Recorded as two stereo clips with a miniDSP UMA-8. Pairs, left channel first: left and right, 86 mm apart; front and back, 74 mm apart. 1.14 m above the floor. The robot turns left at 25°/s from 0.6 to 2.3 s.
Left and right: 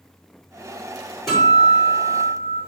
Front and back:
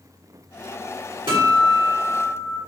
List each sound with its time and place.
1.3 s a guitar: straight behind, 1.7 m; by 2.6 s 155° left, 1.7 m